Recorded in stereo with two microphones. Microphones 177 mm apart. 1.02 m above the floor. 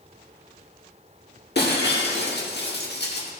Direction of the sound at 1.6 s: 70° left (ahead or behind).